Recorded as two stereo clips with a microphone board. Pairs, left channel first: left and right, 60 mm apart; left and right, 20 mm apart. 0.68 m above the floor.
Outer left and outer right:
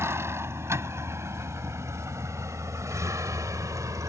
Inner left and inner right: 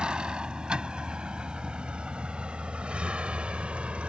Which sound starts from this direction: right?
A vehicle, at 0.0 s.